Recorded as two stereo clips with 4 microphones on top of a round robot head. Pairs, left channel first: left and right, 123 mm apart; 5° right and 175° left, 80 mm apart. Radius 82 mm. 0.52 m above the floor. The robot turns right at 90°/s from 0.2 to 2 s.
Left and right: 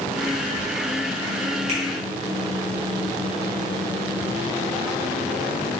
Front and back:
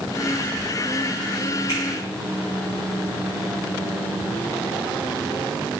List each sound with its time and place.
1.7 s a finger snap: 130° right, 1.8 m; by 1.8 s 120° right, 1.8 m